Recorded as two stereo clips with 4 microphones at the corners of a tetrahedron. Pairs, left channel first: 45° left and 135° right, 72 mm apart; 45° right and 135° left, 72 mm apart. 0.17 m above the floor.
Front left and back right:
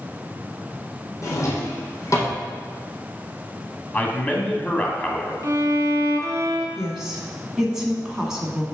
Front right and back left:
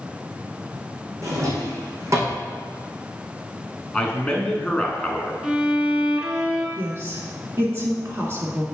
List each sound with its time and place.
1.2 s a drawer: 90° left, 2 m
3.9 s a man speaking: 15° left, 1.1 m
5.4 s a violin: 150° right, 0.7 m
6.8 s a woman speaking: 150° left, 1.6 m